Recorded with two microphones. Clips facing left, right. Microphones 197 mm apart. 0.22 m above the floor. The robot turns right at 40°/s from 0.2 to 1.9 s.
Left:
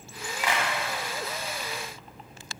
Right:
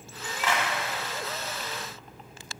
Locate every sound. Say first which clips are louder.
0.4 s a clap: even; 15° left (ahead or behind), 1.3 m; by 0.7 s 20° left (ahead or behind), 1.3 m